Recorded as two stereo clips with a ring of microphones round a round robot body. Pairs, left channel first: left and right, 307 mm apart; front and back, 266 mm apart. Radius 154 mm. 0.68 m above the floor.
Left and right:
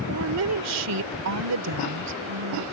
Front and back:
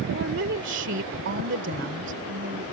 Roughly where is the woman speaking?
Behind right.